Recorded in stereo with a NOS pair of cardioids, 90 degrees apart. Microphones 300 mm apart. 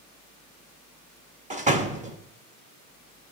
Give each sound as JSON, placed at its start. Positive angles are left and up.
{"t": 1.5, "sound": "a door slam", "azimuth_deg": -25, "distance_m": 1.7}